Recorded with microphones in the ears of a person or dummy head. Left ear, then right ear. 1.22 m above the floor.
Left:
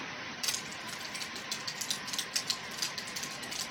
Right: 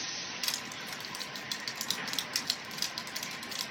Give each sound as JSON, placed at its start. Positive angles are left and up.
{"t": 0.4, "sound": "crushing", "side_deg": -15, "distance_m": 1.3}